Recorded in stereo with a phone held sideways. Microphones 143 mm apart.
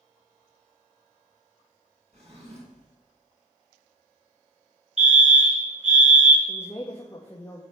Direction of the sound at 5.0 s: 55° right (ahead or behind).